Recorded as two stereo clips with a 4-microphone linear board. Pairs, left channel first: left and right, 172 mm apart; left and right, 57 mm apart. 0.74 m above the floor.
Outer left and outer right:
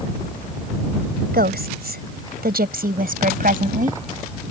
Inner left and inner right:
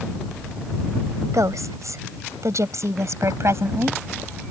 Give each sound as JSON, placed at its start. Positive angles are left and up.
{"t": 1.3, "sound": "a woman speaking", "side_deg": -80}